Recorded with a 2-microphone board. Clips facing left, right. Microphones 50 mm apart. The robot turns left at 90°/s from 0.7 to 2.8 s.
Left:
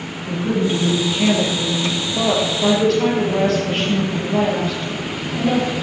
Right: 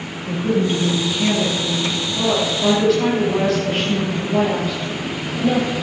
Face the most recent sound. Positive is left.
turn(degrees=-5)